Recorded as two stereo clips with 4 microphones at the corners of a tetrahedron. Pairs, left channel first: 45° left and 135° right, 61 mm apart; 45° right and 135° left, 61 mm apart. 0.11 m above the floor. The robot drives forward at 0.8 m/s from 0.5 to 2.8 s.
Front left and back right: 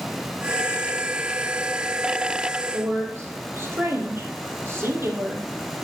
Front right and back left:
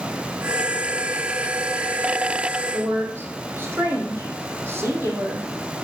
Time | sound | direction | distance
2.7 | a woman speaking | straight behind | 3 m